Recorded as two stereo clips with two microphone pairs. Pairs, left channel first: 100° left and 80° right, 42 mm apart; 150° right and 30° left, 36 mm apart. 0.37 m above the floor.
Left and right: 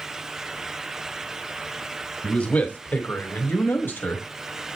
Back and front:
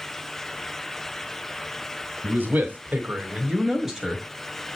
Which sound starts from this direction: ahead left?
A man speaking, at 2.2 s.